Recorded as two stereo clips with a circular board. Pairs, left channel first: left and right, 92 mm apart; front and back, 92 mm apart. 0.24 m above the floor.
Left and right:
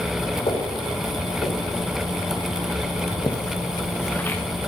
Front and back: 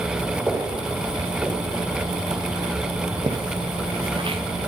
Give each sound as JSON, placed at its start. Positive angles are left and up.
{"t": 0.5, "sound": "footsteps", "azimuth_deg": 105, "distance_m": 3.0}